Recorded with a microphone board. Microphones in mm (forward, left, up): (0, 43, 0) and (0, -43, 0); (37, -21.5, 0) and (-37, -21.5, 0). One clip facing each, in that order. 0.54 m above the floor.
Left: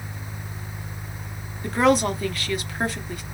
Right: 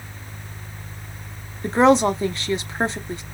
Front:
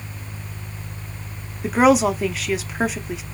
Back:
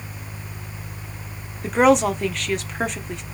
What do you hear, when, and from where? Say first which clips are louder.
1.6 s a woman speaking: right 4 dB, front 1 dB; 80° right, 0.7 m